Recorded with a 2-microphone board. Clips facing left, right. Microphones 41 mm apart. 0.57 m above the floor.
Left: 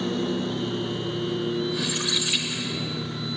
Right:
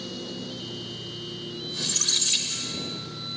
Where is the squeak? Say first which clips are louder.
Left 4 dB; 30° left (ahead or behind).